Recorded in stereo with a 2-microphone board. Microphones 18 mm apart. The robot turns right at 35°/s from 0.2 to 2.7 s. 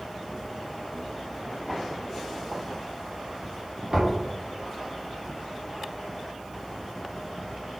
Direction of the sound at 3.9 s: 40° right (ahead or behind).